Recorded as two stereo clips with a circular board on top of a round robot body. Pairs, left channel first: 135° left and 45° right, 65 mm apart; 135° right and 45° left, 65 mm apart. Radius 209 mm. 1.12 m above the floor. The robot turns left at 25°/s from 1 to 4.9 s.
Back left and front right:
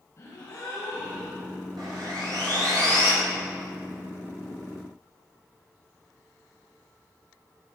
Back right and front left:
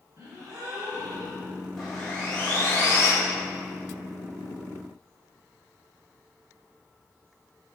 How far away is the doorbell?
No doorbell in this recording.